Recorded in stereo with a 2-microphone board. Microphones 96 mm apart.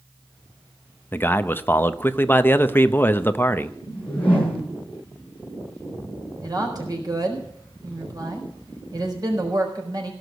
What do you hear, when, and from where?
1.1 s a man speaking: 25° left (ahead or behind), 0.7 m
3.9 s a whoosh: 15° left (ahead or behind), 7.5 m
6.4 s a woman speaking: 45° right (ahead or behind), 4 m